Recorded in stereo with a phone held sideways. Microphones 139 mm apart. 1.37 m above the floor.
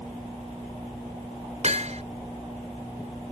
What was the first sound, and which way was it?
Hammering, 55° right (ahead or behind).